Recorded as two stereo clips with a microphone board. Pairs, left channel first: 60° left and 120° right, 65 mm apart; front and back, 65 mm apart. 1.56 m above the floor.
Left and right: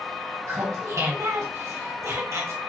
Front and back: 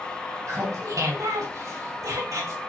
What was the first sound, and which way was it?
Laughter, 155° right.